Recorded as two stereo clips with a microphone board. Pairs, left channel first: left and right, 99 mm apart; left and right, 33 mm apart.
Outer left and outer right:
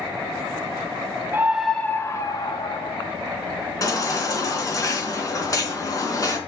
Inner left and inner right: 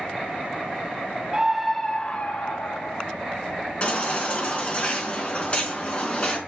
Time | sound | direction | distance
1.3 | a scream | 25° right (ahead or behind) | 1.1 m
3.8 | a baby crying | 35° left (ahead or behind) | 3.5 m